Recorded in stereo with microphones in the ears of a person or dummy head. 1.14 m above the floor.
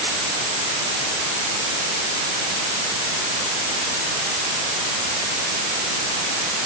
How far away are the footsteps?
No footsteps in this recording.